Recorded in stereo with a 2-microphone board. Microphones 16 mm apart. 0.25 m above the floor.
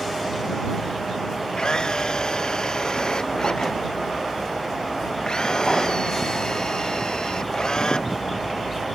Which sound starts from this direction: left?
A camera shutter, at 1.6 s.